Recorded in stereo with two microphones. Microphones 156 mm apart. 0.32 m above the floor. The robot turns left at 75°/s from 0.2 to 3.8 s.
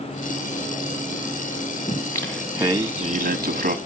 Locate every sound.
1.9 s singing: 40° left, 1.0 m; by 3.8 s 105° right, 1.0 m